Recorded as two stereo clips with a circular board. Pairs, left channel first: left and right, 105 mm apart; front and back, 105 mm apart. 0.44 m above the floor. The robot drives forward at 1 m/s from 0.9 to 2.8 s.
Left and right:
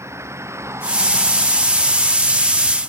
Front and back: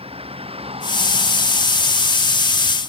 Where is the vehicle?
155° right.